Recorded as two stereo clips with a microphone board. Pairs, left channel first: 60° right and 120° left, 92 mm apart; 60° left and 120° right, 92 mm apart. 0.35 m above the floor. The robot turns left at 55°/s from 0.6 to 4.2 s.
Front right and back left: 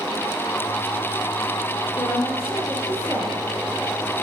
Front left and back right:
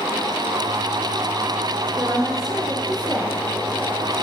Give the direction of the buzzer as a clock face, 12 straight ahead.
No buzzer in this recording.